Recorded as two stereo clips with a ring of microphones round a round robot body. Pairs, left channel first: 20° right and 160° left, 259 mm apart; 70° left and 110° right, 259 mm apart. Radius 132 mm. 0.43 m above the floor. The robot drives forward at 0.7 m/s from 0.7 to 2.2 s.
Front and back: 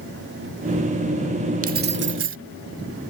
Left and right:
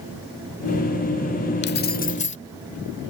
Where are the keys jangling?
105° left; by 2.4 s 125° left.